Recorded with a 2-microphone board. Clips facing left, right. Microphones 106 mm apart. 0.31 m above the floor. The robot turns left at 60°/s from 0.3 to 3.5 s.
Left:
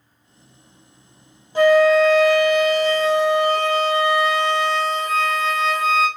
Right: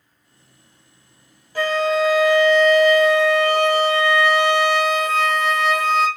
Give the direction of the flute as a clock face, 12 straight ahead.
11 o'clock.